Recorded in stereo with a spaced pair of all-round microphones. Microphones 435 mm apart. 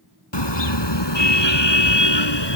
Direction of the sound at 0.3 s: 80° left.